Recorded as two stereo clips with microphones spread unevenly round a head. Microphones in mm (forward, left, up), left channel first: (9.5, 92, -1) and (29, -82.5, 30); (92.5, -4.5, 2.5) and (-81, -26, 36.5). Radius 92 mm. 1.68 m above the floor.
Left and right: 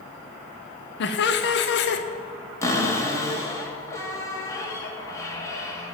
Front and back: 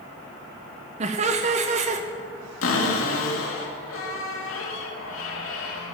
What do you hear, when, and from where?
1.0 s laughter: 130° left, 0.7 m
2.6 s a cupboard door: 20° left, 2 m